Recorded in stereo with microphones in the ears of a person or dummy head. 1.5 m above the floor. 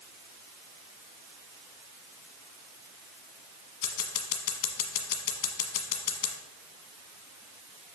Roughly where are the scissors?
Left.